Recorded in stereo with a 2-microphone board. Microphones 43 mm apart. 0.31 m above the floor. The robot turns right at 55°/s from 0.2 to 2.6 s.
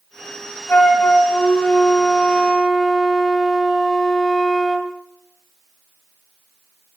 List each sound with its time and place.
0.7 s a flute: 75° left, 2.5 m; by 4.9 s 175° right, 2.5 m